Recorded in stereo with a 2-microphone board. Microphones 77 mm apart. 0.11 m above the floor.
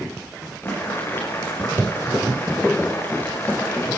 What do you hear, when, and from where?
0.6 s boiling: 30° left (ahead or behind), 7 m